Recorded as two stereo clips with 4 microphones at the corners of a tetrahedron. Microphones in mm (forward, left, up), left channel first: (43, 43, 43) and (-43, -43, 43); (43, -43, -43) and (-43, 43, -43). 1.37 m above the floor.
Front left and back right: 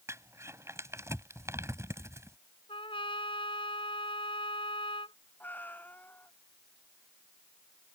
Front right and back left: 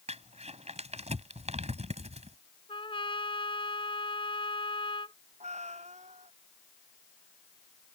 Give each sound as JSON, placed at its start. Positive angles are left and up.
{"t": 0.1, "sound": "crumpling", "azimuth_deg": 160}
{"t": 2.7, "sound": "a trumpet", "azimuth_deg": 0}
{"t": 5.4, "sound": "a cat meowing", "azimuth_deg": 120}